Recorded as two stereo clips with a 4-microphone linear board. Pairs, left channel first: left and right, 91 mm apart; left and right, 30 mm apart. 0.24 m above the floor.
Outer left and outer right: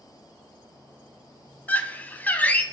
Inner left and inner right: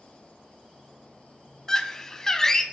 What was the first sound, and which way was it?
A scream, 20° left (ahead or behind).